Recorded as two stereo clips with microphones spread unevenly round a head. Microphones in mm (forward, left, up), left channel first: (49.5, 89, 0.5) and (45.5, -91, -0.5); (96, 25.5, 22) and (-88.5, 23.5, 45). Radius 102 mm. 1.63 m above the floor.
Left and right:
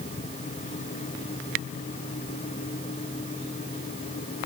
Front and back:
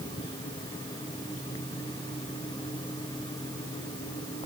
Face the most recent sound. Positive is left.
No sound to turn to.